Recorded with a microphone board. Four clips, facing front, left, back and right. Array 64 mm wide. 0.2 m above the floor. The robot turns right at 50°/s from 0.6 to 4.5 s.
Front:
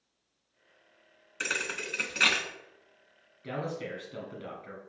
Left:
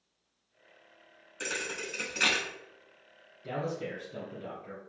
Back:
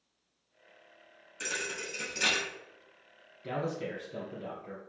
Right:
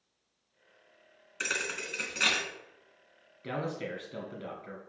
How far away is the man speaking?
About 1.5 m.